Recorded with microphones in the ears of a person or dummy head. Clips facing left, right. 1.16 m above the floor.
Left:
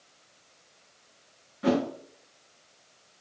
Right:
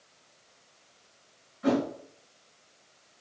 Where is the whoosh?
45° left (ahead or behind), 1.2 m.